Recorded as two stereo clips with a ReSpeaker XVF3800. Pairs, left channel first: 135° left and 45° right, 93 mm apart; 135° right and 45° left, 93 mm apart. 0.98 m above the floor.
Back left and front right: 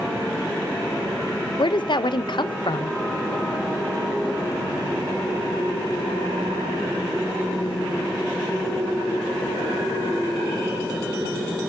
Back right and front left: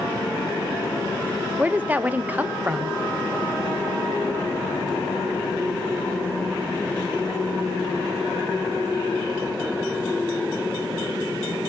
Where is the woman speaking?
115° left, 0.6 m.